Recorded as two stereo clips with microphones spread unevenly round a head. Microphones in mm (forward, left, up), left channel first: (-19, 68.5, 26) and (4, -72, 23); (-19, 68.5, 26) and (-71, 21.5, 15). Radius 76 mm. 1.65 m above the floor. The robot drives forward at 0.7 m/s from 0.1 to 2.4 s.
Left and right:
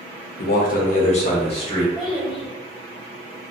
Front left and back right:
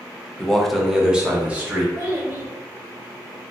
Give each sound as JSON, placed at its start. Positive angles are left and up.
{"t": 0.4, "sound": "a man speaking", "azimuth_deg": 120, "distance_m": 0.7}
{"t": 1.9, "sound": "a child speaking", "azimuth_deg": 180, "distance_m": 2.0}